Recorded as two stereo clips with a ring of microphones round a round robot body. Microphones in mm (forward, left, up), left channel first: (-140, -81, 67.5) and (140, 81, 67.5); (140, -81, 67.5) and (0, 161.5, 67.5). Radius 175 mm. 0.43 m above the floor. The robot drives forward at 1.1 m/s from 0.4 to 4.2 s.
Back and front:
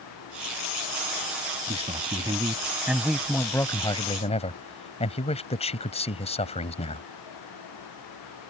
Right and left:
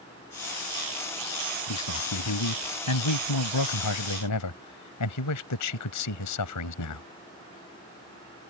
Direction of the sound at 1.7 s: 40° right.